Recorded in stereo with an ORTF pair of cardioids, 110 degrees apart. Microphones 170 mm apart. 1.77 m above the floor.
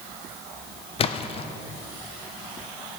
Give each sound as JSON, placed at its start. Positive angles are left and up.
{"t": 1.0, "sound": "a splash", "azimuth_deg": 35, "distance_m": 0.6}